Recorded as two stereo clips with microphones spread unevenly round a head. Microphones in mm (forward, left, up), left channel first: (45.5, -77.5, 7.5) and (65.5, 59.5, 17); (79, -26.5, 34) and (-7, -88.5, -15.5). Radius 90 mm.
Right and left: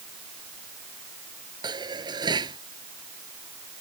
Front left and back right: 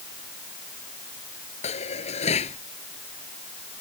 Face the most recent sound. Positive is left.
turn(degrees=25)